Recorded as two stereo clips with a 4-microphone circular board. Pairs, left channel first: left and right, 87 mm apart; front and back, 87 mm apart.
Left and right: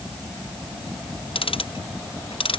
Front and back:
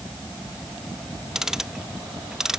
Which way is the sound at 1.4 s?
95° left.